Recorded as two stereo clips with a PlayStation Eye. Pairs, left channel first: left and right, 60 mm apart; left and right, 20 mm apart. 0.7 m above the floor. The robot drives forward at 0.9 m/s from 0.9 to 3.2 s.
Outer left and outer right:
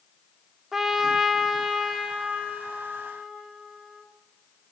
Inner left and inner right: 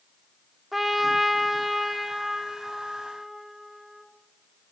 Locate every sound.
0.7 s a trumpet: 5° right (ahead or behind), 1.6 m; by 4.0 s centre (ahead or behind), 3.5 m